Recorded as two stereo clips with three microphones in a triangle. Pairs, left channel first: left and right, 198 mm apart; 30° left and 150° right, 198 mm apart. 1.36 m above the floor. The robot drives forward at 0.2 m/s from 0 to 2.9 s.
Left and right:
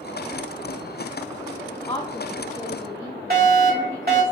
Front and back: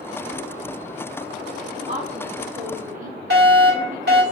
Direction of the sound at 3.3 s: 125° right.